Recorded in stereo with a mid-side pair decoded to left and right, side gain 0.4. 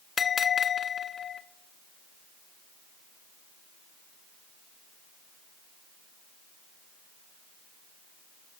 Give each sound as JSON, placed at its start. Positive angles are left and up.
{"t": 0.2, "sound": "a bell", "azimuth_deg": 50, "distance_m": 0.5}